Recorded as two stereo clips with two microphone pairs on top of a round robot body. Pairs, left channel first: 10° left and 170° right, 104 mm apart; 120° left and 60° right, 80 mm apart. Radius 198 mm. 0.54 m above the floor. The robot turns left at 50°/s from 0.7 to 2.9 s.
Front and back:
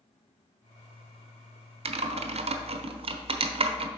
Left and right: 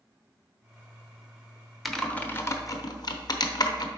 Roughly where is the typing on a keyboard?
Behind right.